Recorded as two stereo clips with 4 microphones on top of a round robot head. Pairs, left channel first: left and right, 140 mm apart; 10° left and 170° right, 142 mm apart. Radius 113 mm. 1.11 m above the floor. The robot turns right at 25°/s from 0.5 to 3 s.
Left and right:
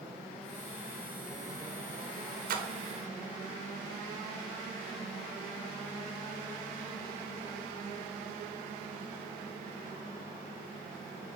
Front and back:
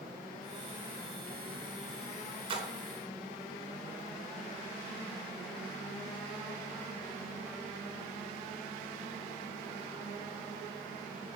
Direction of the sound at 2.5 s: 115° right.